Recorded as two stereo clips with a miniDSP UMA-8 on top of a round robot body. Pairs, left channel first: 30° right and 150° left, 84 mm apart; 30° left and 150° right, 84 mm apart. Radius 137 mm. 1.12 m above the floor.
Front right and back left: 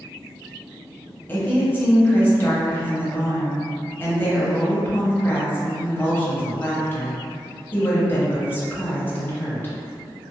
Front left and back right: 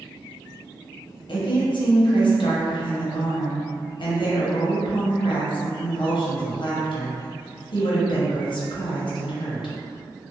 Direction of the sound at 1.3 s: 35° left.